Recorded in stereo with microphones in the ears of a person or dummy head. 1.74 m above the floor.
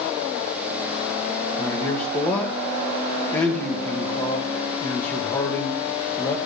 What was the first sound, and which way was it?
A man speaking, 20° left (ahead or behind).